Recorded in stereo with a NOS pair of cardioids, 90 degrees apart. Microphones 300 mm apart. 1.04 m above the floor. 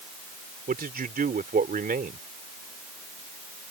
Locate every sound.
0.7 s a man speaking: 30° right